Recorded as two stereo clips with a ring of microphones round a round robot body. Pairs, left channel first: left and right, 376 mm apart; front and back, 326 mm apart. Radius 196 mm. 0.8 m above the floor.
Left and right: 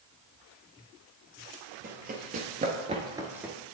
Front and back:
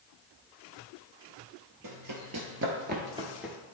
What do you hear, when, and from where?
1.8 s running footsteps: 155° right, 1.3 m; by 3.6 s 20° right, 0.7 m